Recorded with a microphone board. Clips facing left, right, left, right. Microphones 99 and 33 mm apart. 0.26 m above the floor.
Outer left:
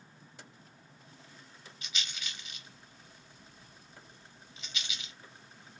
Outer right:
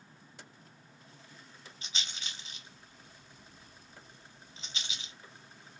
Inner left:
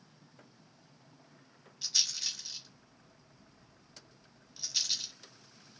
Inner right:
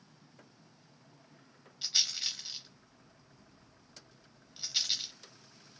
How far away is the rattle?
About 0.9 m.